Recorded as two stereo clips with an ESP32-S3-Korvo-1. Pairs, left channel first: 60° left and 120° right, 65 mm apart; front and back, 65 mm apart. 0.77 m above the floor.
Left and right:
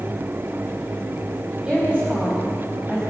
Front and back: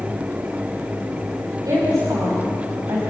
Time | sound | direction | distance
1.6 | a woman speaking | 165° left | 4.5 m